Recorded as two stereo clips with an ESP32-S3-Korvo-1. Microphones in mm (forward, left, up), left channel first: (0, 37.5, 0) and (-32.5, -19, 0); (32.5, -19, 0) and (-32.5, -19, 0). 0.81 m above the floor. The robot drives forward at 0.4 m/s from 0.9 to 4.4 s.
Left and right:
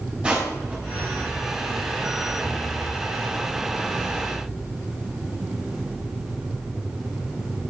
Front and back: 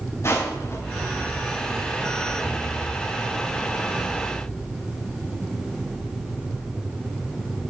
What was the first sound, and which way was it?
Crushing, 45° right.